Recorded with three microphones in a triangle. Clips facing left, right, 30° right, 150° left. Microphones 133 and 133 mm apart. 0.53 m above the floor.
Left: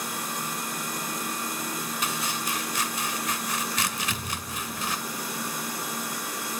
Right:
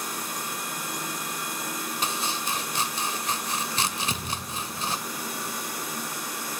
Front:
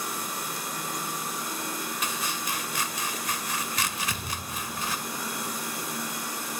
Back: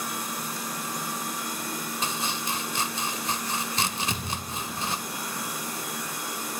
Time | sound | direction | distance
2.0 | chopping | 150° right | 1.5 m
4.1 | a thud | 140° right | 3.5 m